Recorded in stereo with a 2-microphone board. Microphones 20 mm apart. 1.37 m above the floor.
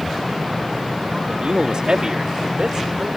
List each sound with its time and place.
1.3 s a man speaking: 55° right (ahead or behind); by 3.2 s 40° right (ahead or behind)